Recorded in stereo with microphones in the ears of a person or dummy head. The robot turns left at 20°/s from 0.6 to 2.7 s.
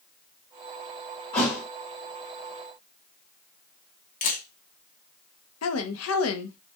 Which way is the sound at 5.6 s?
80° left.